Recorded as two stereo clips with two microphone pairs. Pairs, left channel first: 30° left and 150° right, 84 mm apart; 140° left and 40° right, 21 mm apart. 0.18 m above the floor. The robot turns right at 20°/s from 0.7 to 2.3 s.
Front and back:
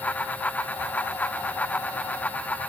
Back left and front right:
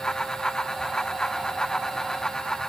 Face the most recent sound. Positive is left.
No sound to turn to.